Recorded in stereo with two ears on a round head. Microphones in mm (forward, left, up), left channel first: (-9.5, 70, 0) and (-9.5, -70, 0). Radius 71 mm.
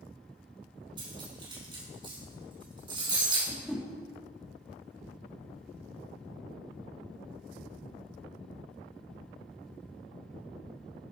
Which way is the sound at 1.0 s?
35° right (ahead or behind).